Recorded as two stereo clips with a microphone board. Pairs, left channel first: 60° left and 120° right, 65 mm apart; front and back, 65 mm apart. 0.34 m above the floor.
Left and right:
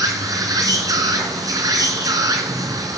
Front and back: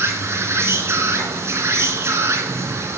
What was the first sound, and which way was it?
An insect, 135° right.